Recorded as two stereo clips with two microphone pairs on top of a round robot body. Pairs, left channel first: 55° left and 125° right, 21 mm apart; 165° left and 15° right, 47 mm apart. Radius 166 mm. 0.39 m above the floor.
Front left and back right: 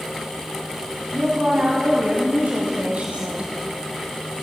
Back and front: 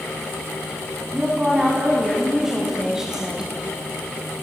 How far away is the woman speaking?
About 4.5 m.